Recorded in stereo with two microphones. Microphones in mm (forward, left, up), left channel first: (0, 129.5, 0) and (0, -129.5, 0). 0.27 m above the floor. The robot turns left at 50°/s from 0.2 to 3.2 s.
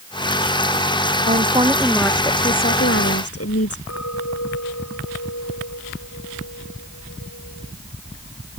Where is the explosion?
No explosion in this recording.